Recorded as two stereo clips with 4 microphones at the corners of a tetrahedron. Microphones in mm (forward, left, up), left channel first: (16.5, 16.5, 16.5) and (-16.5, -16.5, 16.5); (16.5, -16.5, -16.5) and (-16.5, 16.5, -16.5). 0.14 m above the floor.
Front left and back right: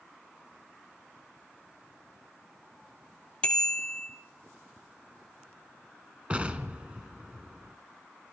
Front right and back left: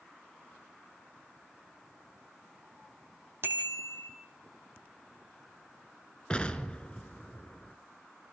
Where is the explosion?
90° right, 1.5 m.